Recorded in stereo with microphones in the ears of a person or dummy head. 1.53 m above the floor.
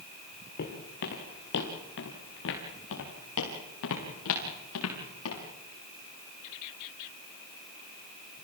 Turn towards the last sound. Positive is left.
turn(degrees=80)